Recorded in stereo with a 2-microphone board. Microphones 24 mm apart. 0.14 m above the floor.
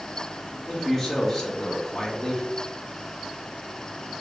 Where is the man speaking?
5° left (ahead or behind), 2 m.